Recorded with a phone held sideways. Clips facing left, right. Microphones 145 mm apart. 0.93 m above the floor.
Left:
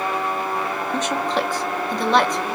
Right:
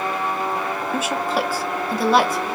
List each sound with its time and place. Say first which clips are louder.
0.9 s a woman speaking: even; 5° right (ahead or behind), 0.5 m